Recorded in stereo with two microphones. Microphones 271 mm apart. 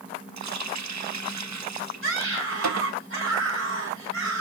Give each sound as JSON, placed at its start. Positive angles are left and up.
{"t": 0.4, "sound": "a running tap", "side_deg": -85, "distance_m": 0.6}
{"t": 2.0, "sound": "a scream", "side_deg": -50, "distance_m": 4.5}